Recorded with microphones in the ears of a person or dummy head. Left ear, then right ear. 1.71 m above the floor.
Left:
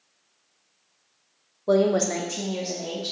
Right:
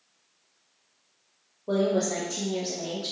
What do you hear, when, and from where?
1.7 s a woman speaking: 75° left (ahead or behind), 0.6 m; by 3.1 s 5° right (ahead or behind), 0.9 m